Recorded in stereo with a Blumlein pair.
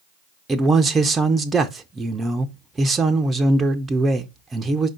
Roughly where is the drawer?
I don't hear a drawer.